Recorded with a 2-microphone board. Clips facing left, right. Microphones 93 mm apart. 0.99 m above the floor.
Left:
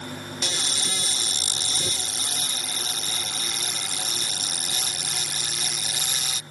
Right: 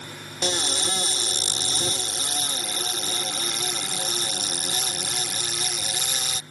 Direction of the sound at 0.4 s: 40° right (ahead or behind).